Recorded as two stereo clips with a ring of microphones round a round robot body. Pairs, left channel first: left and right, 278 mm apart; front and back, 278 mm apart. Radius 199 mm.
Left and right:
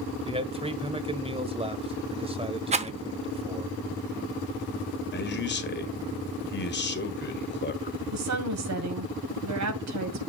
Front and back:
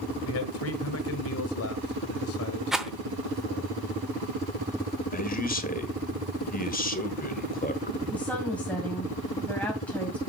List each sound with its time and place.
0.2 s a man speaking: 25° right, 1.6 m
2.7 s a rattle: 95° right, 0.7 m
5.1 s a man speaking: 50° left, 1.8 m
8.1 s a woman speaking: 85° right, 2.5 m